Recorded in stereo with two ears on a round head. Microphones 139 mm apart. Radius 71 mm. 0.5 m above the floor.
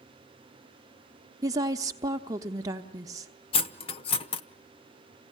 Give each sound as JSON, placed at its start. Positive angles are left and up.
{"t": 1.4, "sound": "a woman speaking", "side_deg": -25, "distance_m": 1.1}
{"t": 3.5, "sound": "cutlery clinking", "side_deg": 35, "distance_m": 0.8}